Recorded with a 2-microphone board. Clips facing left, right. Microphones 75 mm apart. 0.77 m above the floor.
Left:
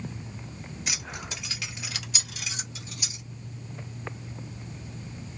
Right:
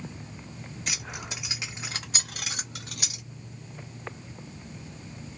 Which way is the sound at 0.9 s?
5° left (ahead or behind).